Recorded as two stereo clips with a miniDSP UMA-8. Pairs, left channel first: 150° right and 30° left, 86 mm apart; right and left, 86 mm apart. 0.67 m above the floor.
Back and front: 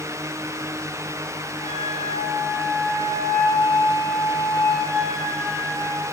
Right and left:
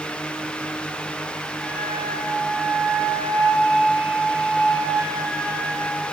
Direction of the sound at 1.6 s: 175° right.